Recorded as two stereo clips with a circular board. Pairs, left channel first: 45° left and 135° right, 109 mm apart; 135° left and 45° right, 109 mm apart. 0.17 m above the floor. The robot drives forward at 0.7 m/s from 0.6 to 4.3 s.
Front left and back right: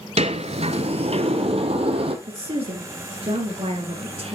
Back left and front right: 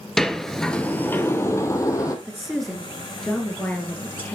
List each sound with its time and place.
0.2 s a sliding door: 140° right, 0.7 m; by 2.1 s 165° right, 1.6 m
2.2 s a woman speaking: 130° right, 2 m; by 4.4 s 150° right, 3 m